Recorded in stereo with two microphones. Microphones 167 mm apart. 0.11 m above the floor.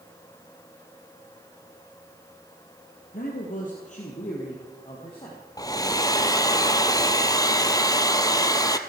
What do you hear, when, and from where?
3.1 s a man speaking: 60° left (ahead or behind), 2 m; by 5.4 s 30° left (ahead or behind), 3.5 m
5.6 s a hair dryer: 20° left (ahead or behind), 0.9 m